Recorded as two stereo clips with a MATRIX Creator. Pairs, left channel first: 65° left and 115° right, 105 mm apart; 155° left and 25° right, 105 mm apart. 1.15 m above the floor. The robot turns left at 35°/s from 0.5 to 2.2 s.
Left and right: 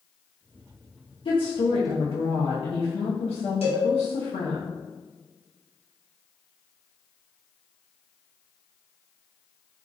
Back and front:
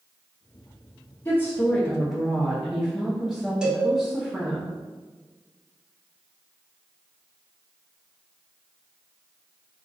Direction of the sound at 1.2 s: 95° left.